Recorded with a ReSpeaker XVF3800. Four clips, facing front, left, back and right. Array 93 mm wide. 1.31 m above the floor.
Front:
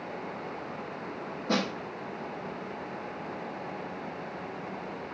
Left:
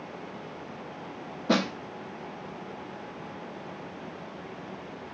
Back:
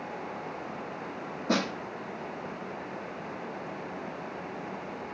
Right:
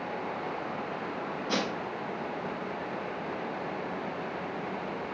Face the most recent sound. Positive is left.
turn(degrees=95)